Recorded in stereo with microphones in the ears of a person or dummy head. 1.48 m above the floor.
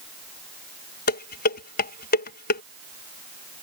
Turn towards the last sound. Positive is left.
turn(degrees=40)  # may be behind; listen again after turning